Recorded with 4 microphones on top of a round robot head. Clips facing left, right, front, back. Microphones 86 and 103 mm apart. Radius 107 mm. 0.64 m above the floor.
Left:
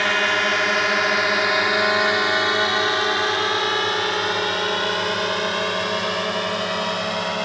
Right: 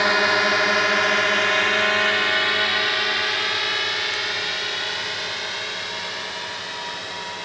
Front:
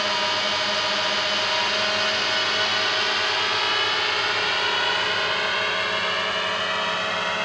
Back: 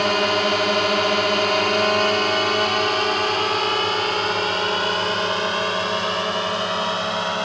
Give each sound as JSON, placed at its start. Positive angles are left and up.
{"t": 0.0, "sound": "a drone", "azimuth_deg": -165}